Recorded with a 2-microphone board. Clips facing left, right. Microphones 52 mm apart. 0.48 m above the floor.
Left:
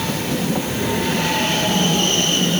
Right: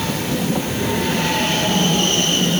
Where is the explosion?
I don't hear an explosion.